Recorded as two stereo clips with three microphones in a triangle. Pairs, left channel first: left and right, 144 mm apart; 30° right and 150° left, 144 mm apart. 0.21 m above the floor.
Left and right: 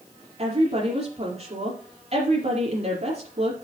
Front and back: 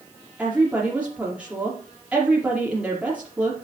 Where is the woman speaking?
130° right, 5 m.